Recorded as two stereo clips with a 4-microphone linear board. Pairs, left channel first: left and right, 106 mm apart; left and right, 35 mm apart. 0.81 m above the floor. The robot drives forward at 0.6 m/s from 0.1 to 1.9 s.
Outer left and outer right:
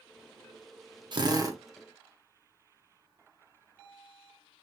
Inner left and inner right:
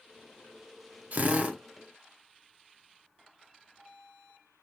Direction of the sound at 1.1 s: 45° right (ahead or behind).